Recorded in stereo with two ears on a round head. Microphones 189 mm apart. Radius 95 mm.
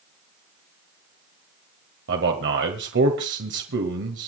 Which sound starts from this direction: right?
A man speaking, at 2.1 s.